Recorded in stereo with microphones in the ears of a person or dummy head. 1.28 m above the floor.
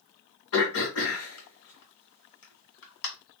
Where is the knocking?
I don't hear knocking.